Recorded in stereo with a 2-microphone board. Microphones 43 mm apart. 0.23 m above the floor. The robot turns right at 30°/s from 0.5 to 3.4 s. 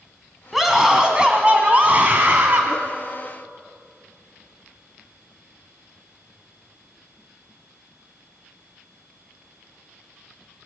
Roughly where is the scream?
Behind.